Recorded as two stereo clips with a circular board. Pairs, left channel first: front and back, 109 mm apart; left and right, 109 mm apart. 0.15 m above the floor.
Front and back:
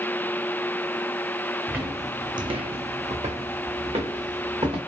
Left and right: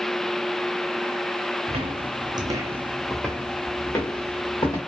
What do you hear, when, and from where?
1.7 s footsteps: 105° right, 0.7 m; by 4.8 s 140° left, 1.3 m